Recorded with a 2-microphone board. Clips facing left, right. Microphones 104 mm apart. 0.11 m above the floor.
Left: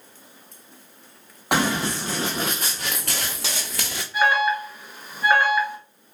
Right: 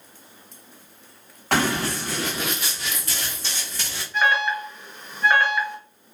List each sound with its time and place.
1.5 s running footsteps: 15° left (ahead or behind), 1.1 m; by 4.0 s 80° left, 0.8 m
4.1 s an alarm: 10° left (ahead or behind), 1.1 m